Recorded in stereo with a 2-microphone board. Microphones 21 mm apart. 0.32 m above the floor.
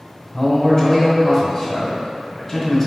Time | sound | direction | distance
0.3 | a man speaking | 20° left (ahead or behind) | 1.0 m